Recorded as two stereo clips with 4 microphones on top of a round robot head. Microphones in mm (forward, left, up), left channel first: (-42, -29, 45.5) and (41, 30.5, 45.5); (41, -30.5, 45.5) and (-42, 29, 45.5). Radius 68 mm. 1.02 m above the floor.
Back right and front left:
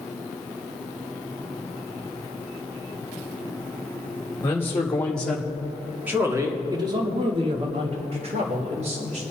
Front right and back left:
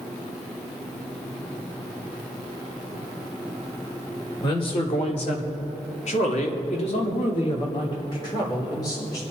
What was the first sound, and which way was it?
A man speaking, 80° right.